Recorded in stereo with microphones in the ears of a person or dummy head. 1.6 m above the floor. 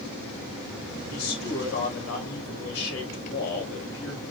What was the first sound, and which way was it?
A man speaking, 85° left.